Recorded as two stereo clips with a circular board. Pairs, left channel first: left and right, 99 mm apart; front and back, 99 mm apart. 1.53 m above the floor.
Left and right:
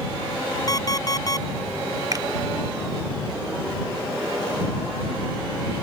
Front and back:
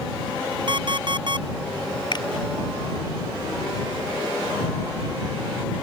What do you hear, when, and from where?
0.7 s an alarm clock: 140° left
2.1 s a finger snap: 40° right